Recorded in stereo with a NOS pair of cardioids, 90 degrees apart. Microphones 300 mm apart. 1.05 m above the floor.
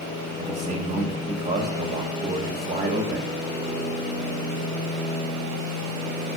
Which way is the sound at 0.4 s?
25° right.